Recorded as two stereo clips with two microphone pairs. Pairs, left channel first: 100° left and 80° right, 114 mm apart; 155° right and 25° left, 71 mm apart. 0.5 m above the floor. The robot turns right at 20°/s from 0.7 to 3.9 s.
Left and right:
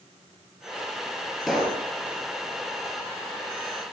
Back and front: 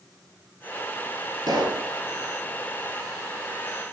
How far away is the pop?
About 3.5 m.